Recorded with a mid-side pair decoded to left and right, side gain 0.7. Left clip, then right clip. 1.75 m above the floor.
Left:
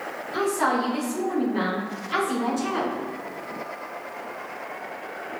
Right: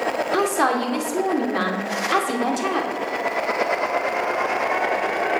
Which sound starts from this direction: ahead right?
A woman speaking, at 0.3 s.